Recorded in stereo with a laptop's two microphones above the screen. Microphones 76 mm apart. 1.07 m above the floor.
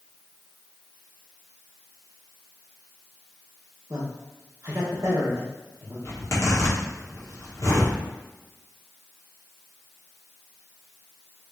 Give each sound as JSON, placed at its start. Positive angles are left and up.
{"t": 3.9, "sound": "a man speaking", "side_deg": -50, "distance_m": 1.2}
{"t": 6.0, "sound": "a zipper", "side_deg": 45, "distance_m": 1.4}